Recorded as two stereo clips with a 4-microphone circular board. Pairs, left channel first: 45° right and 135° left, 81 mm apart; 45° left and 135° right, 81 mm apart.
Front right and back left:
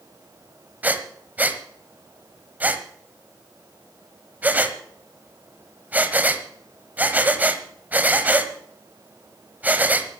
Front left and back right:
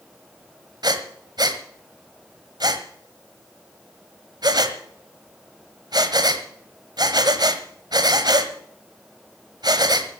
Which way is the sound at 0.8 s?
155° right.